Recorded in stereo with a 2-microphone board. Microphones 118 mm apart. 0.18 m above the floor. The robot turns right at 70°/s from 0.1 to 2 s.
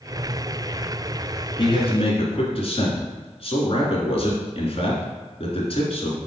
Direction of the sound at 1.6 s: 45° left (ahead or behind).